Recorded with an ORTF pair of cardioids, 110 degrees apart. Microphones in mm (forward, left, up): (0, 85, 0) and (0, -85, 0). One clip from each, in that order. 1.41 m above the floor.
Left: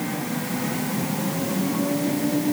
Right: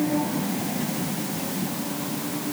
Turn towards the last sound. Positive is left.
No sound to turn to.